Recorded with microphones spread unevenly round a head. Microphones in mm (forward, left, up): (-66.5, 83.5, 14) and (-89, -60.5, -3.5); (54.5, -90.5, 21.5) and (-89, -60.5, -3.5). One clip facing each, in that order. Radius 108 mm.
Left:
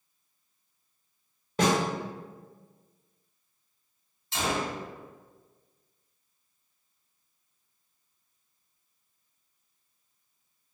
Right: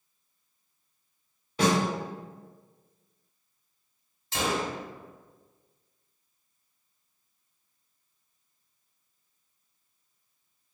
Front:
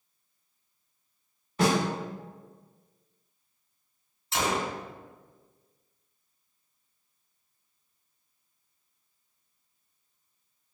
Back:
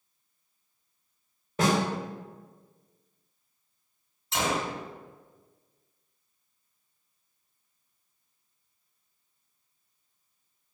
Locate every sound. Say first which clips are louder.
1.6 s a snare drum: even, front 1 dB; 115° left, 1.7 m
4.3 s a gunshot: right 1 dB, even; 85° right, 0.9 m